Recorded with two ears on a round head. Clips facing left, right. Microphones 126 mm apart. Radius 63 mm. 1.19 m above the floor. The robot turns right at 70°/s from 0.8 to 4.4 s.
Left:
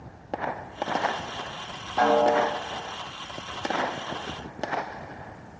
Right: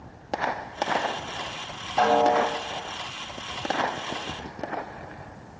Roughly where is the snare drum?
Ahead right.